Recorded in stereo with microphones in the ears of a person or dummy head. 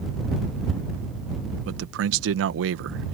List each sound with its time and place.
1.6 s a man speaking: 75° right (ahead or behind)